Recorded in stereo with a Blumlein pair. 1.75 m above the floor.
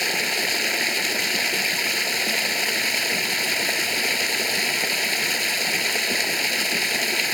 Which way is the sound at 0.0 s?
5° left.